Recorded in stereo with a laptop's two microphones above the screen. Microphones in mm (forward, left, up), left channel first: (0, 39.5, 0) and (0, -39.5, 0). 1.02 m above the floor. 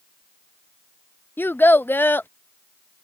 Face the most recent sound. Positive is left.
turn(degrees=25)  # may be behind; listen again after turning